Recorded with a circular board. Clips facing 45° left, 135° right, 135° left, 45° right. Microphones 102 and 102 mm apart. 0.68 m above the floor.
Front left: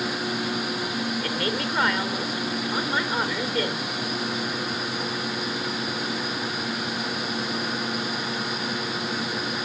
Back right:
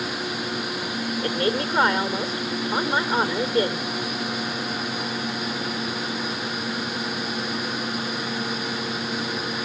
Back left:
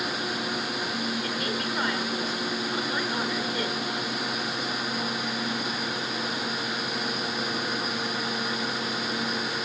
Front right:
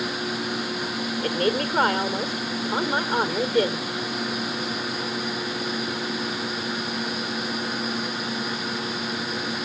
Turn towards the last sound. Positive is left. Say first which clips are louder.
# back right 3 dB, front right 7 dB
turn(degrees=-80)